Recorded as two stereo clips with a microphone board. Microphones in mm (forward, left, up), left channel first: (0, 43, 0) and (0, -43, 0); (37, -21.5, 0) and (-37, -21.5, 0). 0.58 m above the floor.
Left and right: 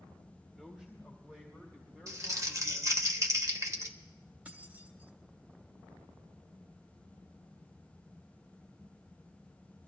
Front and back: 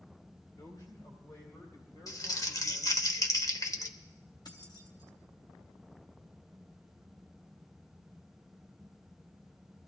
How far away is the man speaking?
About 1.8 m.